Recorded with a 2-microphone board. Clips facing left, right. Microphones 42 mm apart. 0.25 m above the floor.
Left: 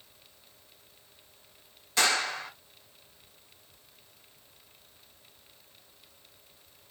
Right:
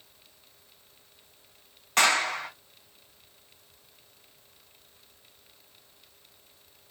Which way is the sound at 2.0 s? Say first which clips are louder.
Right 4 dB; 55° right (ahead or behind).